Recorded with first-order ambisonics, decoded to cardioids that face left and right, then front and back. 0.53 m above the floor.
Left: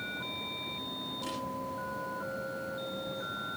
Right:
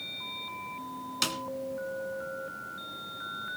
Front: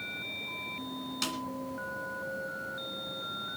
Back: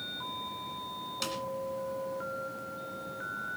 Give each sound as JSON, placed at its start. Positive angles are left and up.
{"t": 1.2, "sound": "a snare drum", "azimuth_deg": -85, "distance_m": 2.0}